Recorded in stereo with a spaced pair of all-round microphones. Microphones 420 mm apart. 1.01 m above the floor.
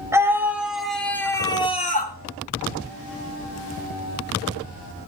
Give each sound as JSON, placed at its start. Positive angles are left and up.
{"t": 0.1, "sound": "a scream", "side_deg": -5, "distance_m": 5.0}